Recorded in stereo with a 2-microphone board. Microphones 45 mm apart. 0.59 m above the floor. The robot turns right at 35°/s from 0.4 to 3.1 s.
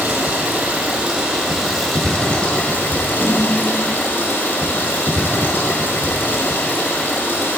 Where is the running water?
50° right, 2 m; by 7.6 s 45° left, 2 m.